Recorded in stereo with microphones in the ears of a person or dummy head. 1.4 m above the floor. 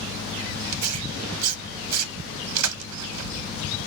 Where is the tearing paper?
80° right, 0.9 m.